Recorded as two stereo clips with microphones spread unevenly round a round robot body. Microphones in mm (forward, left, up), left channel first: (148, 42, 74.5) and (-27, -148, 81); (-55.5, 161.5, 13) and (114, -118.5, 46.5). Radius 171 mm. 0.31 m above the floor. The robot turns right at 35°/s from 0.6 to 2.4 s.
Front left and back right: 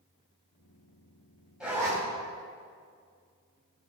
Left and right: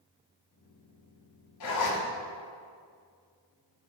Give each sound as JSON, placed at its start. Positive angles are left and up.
{"t": 1.6, "sound": "a zipper", "azimuth_deg": 140, "distance_m": 3.0}